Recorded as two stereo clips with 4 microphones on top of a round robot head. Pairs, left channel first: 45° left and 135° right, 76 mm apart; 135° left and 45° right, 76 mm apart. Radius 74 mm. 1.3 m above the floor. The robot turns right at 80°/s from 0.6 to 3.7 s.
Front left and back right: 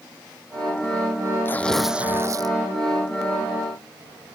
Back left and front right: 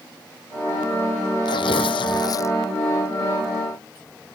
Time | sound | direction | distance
1.4 | tearing paper | 105° left | ?